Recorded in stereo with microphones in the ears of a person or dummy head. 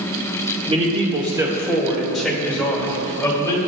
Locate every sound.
0.7 s a man speaking: 35° right (ahead or behind), 1.8 m; by 3.6 s 15° left (ahead or behind), 3 m